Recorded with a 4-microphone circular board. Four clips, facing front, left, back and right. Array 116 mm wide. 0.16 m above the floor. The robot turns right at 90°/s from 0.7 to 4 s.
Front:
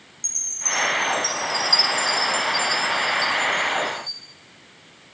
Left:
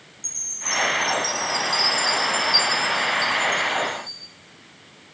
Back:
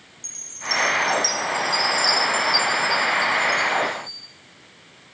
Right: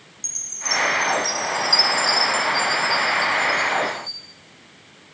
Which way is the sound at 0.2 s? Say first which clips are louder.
Right 2 dB, back 2 dB; 95° left.